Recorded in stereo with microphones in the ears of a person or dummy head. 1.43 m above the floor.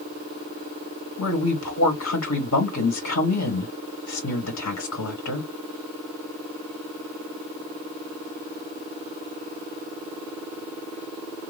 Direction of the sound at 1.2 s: 80° left.